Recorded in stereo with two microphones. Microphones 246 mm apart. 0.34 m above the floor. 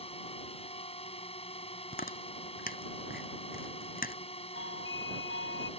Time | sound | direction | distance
0.0 | a drone | 25° left (ahead or behind) | ?
1.9 | chewing | 35° left (ahead or behind) | ?
4.5 | a doorbell | 55° left (ahead or behind) | ?